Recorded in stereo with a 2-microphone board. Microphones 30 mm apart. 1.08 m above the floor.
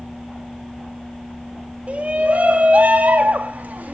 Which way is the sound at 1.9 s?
50° right (ahead or behind).